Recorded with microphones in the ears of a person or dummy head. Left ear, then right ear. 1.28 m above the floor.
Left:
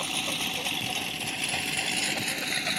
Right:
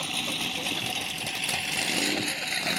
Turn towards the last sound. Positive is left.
turn(degrees=0)  # may be behind; listen again after turning